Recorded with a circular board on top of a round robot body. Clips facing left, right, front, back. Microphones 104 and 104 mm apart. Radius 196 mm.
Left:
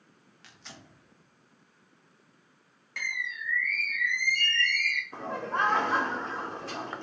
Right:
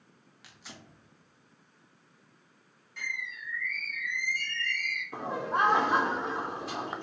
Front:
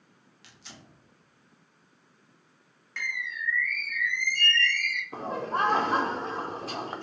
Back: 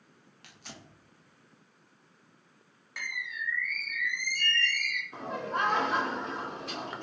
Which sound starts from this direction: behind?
Tearing paper, at 0.4 s.